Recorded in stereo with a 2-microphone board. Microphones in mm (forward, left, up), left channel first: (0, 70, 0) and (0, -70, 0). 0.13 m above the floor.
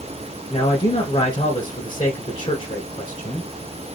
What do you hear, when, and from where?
0.5 s a man speaking: 40° left (ahead or behind), 1.4 m